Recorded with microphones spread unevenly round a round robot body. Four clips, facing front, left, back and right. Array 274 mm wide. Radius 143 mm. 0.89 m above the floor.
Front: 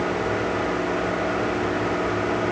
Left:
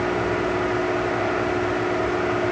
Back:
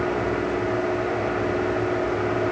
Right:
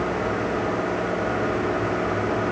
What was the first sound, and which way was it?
Only background noise.